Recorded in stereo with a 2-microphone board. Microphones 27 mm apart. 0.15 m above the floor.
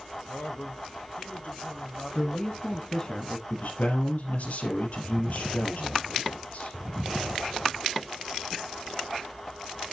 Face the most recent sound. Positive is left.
turn(degrees=65)  # may be behind; listen again after turning